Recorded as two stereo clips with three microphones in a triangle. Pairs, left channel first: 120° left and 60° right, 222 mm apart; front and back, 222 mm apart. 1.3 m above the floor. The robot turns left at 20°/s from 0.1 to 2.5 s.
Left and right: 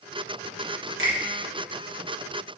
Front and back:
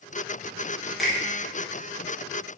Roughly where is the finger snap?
Right.